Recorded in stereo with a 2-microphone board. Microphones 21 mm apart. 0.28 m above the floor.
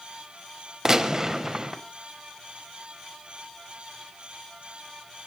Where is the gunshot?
20° right (ahead or behind), 1.1 m.